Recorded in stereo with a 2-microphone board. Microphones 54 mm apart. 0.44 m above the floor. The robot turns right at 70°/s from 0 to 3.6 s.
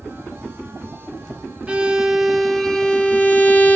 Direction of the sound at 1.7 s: 55° right.